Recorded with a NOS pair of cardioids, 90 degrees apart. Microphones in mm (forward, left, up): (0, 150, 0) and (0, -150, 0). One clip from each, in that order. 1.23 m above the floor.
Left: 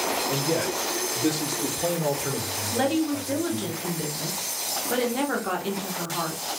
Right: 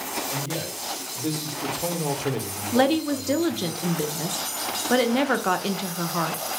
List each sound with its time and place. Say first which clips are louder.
0.3 s a man speaking: left 5 dB; 55° left, 2 m; by 3.7 s 75° right, 2 m
2.7 s a woman speaking: right 4 dB; 35° right, 0.9 m